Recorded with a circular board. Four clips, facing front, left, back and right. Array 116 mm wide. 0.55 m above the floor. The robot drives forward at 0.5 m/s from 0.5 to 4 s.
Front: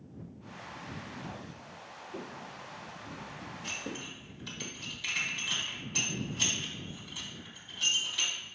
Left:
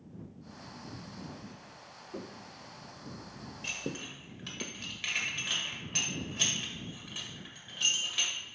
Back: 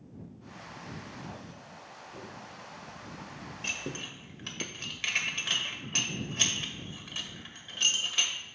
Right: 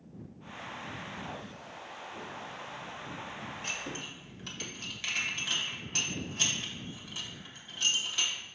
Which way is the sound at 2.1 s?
65° left.